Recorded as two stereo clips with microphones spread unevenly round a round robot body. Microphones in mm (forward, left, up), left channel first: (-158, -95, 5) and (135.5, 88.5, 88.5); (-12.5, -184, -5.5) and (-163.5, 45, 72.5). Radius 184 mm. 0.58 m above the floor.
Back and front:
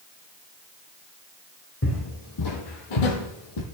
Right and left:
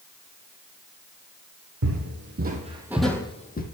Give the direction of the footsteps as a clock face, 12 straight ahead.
7 o'clock.